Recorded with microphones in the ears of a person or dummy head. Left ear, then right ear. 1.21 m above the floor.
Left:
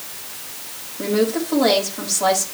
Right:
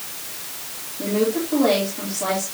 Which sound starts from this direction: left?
A woman speaking, at 1.0 s.